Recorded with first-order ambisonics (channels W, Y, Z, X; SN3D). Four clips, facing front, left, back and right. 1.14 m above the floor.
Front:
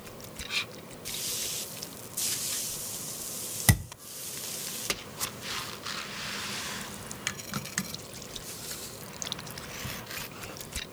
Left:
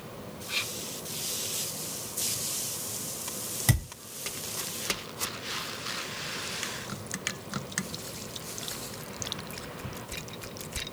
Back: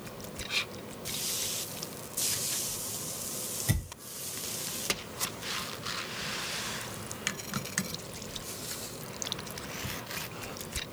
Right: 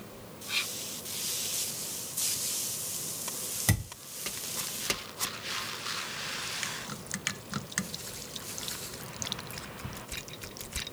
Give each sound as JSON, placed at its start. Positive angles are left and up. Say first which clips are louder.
{"t": 3.7, "sound": "a thud", "louder": "left 2 dB, front 9 dB", "azimuth_deg": 0, "distance_m": 1.2}